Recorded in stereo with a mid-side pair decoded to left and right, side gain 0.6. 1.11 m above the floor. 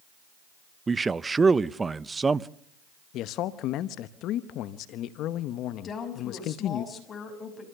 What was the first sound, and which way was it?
A man speaking, 20° right.